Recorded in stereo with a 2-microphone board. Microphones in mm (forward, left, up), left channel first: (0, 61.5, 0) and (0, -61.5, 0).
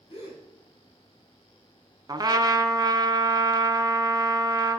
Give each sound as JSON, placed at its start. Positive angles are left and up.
{"t": 0.1, "sound": "a gasp", "side_deg": 55, "distance_m": 3.5}
{"t": 2.1, "sound": "a trumpet", "side_deg": -30, "distance_m": 0.6}